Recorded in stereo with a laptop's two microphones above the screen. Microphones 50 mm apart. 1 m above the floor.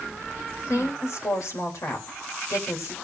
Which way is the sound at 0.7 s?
70° left (ahead or behind).